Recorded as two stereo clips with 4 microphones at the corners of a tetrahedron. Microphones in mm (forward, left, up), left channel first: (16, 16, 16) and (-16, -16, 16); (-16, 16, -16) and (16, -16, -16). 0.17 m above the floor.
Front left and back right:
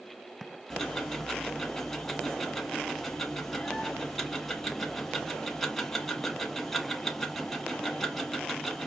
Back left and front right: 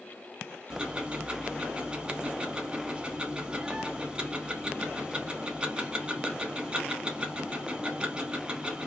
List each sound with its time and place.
0.7 s ticking: 25° right, 1.2 m